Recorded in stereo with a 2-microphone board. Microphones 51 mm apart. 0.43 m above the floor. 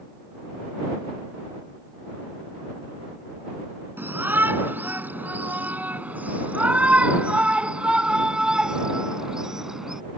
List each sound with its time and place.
4.0 s a shout: 45° right (ahead or behind); by 10.0 s 10° right (ahead or behind)